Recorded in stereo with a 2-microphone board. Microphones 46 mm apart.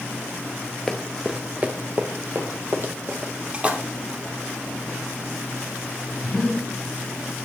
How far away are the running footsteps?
About 0.7 m.